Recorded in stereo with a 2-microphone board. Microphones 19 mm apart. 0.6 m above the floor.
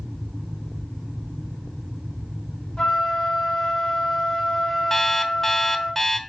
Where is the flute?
50° left (ahead or behind), 3 m.